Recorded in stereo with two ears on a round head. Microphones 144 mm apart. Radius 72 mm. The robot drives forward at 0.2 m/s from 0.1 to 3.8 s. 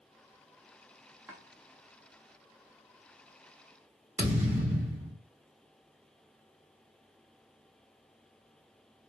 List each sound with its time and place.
1.3 s chopping: 10° right (ahead or behind), 0.7 m
4.2 s a thud: 10° right (ahead or behind), 1.3 m